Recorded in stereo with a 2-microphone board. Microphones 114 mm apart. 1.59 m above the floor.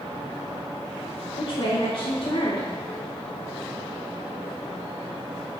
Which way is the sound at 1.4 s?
60° left (ahead or behind).